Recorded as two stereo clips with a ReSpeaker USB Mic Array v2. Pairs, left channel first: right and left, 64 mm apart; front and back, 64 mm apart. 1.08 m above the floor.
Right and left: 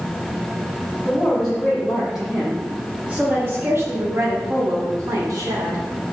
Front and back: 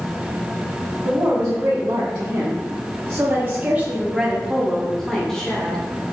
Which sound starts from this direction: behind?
A woman speaking, at 1.1 s.